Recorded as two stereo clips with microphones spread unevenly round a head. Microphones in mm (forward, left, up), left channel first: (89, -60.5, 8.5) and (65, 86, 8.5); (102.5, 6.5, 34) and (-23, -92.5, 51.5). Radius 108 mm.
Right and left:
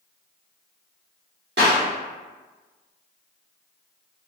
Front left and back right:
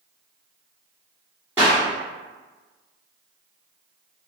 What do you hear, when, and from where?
1.6 s a clap: 140° left, 1.9 m